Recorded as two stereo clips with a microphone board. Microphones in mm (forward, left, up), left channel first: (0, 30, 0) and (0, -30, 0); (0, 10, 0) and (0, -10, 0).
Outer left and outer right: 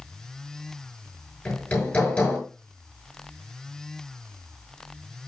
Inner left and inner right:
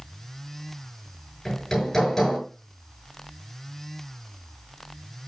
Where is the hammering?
20° left (ahead or behind), 6.5 m.